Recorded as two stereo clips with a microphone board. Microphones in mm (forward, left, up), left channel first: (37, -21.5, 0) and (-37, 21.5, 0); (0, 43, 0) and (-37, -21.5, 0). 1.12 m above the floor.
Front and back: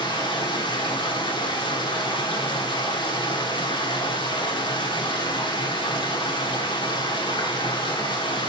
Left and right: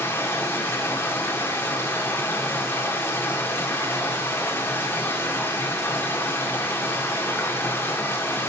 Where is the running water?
Straight ahead, 1.9 m.